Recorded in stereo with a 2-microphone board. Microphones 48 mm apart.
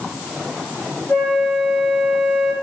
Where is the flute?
50° left (ahead or behind), 1.2 m.